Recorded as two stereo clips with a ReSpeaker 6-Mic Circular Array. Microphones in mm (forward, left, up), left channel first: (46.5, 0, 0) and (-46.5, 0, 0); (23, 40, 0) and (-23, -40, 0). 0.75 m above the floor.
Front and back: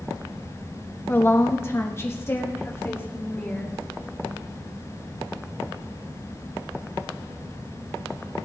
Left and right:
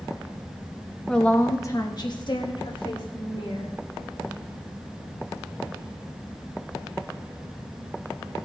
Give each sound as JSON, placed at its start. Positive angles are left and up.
{"t": 1.1, "sound": "a woman speaking", "azimuth_deg": -15, "distance_m": 1.0}